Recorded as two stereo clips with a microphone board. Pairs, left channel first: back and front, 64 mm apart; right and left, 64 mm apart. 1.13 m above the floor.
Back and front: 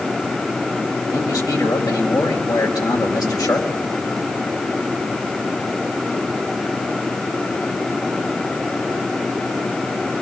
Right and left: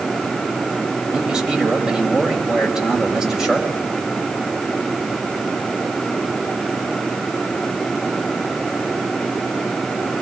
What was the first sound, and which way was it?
A man speaking, 170° left.